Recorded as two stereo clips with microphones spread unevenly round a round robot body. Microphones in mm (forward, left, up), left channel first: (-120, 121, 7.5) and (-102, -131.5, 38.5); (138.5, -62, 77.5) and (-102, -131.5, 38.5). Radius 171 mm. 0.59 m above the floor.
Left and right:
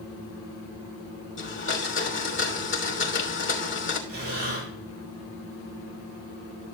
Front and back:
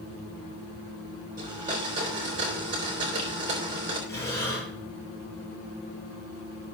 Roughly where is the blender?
Behind left.